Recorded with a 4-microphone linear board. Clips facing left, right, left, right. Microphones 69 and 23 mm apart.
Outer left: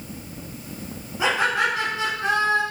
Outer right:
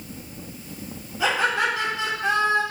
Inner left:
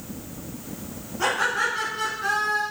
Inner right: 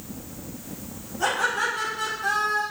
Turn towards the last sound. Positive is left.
turn(degrees=45)  # may be behind; listen again after turning